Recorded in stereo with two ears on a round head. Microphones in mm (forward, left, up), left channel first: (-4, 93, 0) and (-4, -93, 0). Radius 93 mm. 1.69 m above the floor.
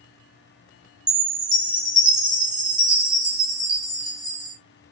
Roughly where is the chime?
Centre.